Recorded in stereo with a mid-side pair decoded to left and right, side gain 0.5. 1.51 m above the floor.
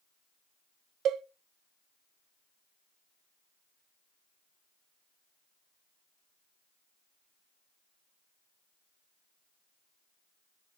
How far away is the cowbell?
About 0.8 m.